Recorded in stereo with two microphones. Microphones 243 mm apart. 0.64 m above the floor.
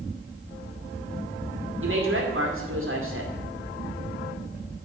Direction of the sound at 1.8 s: 55° right (ahead or behind).